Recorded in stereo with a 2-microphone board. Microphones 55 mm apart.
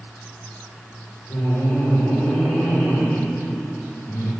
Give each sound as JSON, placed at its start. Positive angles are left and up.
{"t": 1.3, "sound": "laughter", "side_deg": 60, "distance_m": 2.5}